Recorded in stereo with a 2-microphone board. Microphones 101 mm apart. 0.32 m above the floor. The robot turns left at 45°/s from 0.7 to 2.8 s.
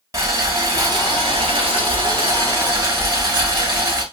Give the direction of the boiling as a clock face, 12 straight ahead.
1 o'clock.